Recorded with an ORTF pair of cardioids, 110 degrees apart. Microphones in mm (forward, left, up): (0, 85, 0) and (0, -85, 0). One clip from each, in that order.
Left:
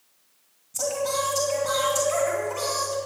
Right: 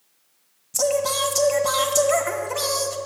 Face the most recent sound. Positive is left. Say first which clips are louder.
# right 5 dB
turn(degrees=-55)